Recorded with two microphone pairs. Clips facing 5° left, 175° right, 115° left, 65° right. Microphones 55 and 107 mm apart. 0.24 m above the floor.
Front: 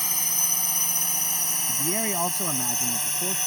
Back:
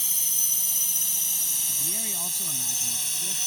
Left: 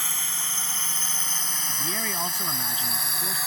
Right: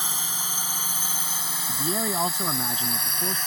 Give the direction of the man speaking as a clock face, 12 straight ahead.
12 o'clock.